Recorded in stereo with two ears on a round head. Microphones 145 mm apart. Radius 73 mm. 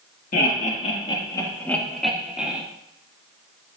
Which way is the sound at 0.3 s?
60° left (ahead or behind).